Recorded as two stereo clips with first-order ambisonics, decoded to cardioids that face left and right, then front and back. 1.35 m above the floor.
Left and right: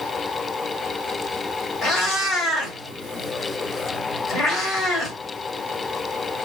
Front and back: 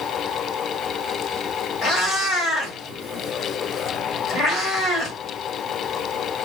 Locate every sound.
1.8 s a cat meowing: 45° left, 1.3 m